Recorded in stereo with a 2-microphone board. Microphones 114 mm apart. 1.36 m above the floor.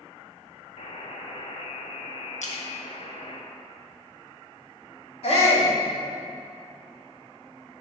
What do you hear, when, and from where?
0.8 s a buzzer: 55° left (ahead or behind), 1.2 m
2.4 s a splash: 80° left, 1.4 m
5.2 s a shout: 65° left (ahead or behind), 3.5 m